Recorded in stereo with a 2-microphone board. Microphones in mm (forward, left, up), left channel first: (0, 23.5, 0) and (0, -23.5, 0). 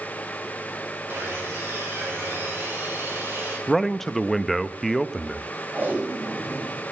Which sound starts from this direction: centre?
A man speaking, at 3.7 s.